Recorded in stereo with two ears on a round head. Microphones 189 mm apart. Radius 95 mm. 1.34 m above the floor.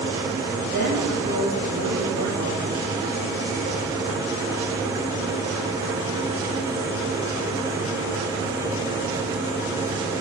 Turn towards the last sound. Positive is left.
turn(degrees=-90)